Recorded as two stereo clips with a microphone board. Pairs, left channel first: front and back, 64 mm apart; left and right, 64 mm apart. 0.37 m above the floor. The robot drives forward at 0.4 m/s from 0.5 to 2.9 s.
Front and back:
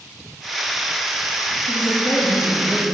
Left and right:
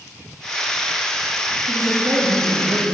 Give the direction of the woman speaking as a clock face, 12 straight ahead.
2 o'clock.